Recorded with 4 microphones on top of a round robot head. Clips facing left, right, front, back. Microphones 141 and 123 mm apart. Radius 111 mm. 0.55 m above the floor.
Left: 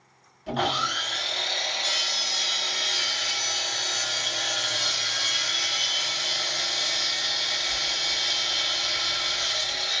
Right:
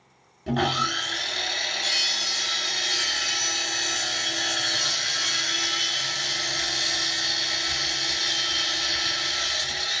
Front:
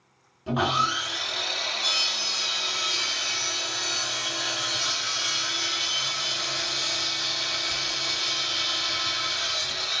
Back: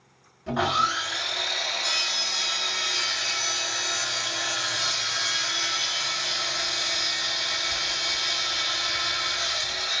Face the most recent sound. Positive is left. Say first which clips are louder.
# right 2 dB, even
turn(degrees=-70)